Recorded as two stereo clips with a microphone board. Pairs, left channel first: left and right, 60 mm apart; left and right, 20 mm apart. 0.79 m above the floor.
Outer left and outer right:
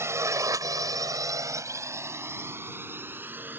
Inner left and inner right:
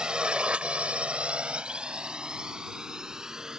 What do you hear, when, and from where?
0.0 s a drone: 45° right (ahead or behind); by 3.6 s 30° right (ahead or behind)